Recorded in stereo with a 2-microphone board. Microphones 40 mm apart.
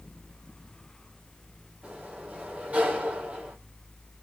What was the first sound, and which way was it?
A sliding door, 35° right (ahead or behind).